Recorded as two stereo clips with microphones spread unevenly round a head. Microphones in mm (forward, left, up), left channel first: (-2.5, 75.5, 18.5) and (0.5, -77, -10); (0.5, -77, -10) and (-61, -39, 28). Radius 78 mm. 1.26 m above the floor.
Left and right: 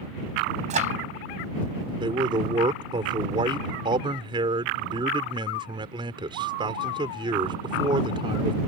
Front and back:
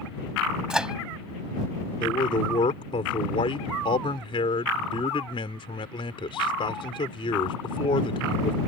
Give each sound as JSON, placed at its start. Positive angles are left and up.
{"t": 0.7, "sound": "a microwave", "azimuth_deg": -135}
{"t": 2.0, "sound": "a man speaking", "azimuth_deg": -25}